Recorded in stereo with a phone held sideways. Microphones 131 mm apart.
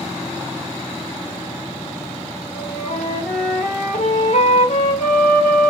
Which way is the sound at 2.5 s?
85° left.